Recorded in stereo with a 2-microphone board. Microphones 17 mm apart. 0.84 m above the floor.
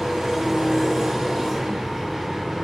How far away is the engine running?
About 0.8 m.